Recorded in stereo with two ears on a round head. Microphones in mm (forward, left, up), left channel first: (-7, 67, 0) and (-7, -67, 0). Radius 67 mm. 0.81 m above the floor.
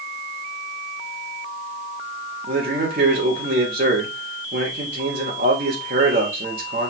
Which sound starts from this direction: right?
A man speaking, at 2.4 s.